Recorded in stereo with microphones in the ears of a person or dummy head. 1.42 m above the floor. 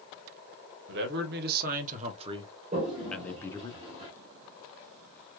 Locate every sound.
0.9 s a man speaking: 60° right (ahead or behind), 1.4 m; by 3.7 s 25° left (ahead or behind), 1.0 m
2.7 s a toilet flushing: 30° right (ahead or behind), 1.7 m